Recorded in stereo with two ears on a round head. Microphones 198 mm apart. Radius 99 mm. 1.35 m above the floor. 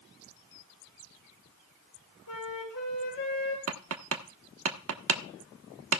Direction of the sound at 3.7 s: 60° right (ahead or behind).